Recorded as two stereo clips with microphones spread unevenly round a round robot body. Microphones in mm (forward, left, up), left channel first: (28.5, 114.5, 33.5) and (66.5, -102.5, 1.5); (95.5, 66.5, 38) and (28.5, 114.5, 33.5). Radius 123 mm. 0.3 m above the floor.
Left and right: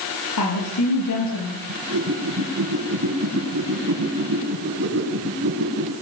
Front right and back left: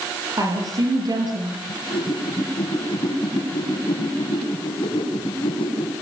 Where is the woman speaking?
105° left, 7 m; by 1.6 s 110° left, 6.5 m.